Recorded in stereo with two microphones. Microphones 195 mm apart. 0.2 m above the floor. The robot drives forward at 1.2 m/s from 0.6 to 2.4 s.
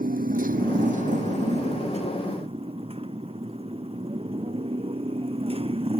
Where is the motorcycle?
45° right (ahead or behind); by 6.0 s 30° right (ahead or behind).